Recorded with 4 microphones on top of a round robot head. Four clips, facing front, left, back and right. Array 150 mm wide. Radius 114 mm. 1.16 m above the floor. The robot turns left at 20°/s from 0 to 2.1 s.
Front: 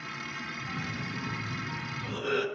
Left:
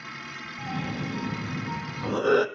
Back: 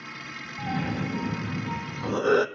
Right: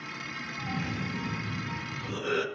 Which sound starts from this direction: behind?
A cough, at 0.6 s.